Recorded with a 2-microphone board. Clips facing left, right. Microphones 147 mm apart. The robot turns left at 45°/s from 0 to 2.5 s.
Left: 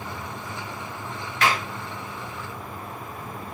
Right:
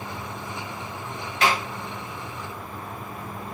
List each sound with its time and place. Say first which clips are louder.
1.4 s a clap: right 1 dB; 30° right (ahead or behind), 2 m; by 1.7 s 20° right (ahead or behind), 2 m